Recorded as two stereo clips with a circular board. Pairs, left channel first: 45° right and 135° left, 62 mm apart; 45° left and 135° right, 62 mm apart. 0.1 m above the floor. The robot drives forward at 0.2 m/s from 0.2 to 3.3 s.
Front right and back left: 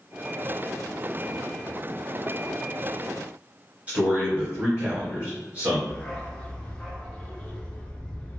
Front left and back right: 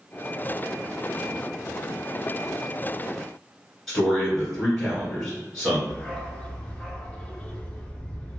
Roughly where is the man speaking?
Behind left.